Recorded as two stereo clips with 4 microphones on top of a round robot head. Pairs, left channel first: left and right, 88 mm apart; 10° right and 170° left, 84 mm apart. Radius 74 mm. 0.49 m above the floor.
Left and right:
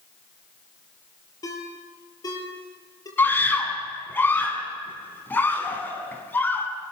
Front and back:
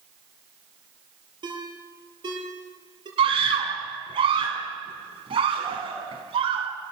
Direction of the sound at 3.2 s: 160° left.